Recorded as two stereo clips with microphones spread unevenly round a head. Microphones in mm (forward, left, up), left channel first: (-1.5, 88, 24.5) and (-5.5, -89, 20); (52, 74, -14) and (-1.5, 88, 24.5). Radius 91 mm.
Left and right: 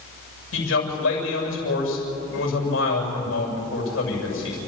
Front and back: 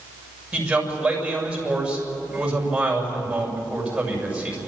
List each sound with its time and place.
0.5 s a man speaking: 105° left, 7.5 m